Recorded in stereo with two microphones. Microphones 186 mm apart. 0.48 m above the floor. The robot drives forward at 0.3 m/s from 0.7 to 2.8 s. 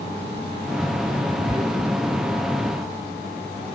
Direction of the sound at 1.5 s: 15° right (ahead or behind).